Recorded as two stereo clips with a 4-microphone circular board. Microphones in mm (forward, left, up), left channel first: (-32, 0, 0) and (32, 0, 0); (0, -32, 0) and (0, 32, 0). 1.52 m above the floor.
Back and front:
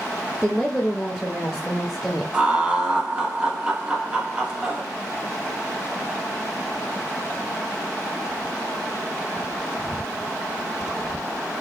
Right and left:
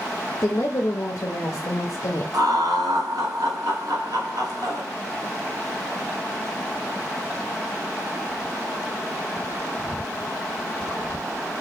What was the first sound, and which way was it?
A woman speaking, 100° right.